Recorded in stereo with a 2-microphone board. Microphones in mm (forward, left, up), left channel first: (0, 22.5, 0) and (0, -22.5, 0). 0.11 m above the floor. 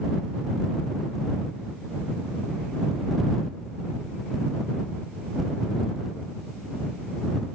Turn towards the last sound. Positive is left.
No sound to turn to.